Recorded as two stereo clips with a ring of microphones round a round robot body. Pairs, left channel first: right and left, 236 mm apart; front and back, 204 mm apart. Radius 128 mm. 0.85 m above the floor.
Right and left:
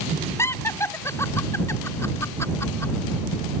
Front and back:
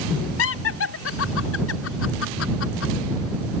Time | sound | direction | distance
0.4 | laughter | 10° right | ?